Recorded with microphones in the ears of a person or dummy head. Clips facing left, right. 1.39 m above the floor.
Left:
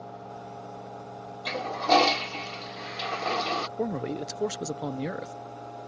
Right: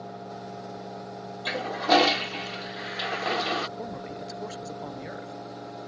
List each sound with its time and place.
1.4 s a toilet flushing: 10° right (ahead or behind)
3.8 s a man speaking: 50° left (ahead or behind)